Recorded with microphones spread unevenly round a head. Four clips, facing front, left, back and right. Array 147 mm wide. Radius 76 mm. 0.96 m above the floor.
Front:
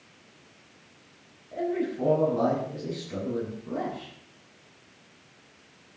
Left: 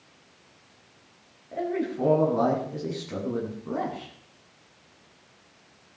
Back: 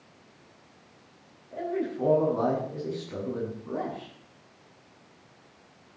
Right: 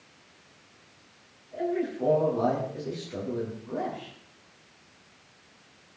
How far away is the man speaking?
About 9 m.